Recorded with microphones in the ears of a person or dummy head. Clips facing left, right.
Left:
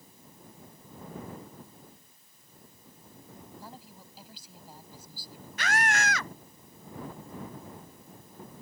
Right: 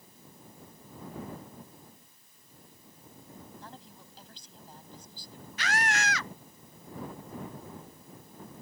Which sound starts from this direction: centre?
A woman speaking, at 3.6 s.